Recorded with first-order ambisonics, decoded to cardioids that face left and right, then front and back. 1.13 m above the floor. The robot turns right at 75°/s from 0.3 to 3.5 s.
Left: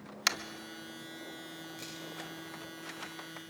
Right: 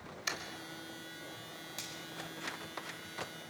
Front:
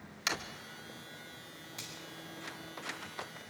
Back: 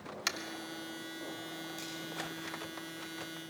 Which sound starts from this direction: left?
Tapping, at 0.3 s.